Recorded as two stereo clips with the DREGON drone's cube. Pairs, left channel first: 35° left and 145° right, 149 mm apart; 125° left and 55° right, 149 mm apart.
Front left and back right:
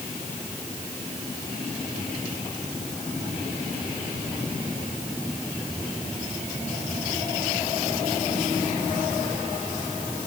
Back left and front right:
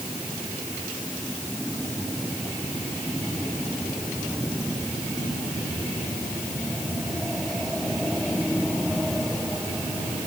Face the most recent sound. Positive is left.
No sound to turn to.